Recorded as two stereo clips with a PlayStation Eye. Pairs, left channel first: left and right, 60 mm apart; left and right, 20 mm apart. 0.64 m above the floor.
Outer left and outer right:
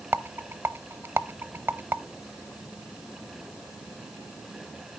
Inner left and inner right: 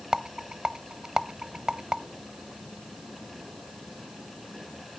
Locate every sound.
0.1 s a rattle: 40° right (ahead or behind), 0.5 m